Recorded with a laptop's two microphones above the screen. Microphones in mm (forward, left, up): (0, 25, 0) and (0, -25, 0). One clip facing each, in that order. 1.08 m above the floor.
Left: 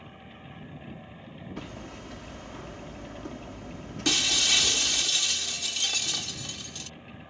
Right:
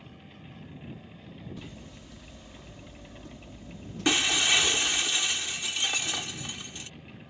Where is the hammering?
70° left (ahead or behind).